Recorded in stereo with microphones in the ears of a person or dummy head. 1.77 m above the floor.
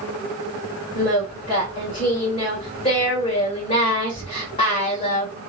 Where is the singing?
25° left (ahead or behind), 1.5 m.